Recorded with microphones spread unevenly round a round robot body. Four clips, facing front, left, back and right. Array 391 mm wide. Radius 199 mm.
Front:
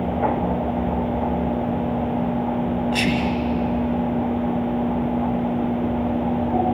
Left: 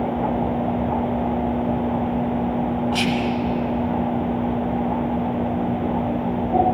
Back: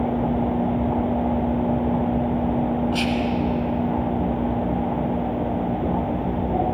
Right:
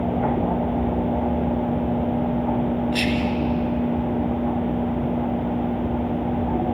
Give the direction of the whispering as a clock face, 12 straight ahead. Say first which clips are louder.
Left 1 dB, front 1 dB; 11 o'clock.